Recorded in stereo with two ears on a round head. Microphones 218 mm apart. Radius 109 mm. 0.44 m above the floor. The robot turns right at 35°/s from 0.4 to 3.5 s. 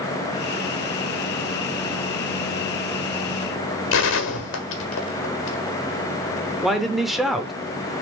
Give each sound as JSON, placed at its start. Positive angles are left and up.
{"t": 3.9, "sound": "a gunshot", "side_deg": 55, "distance_m": 1.6}
{"t": 6.6, "sound": "a man speaking", "side_deg": 0, "distance_m": 0.8}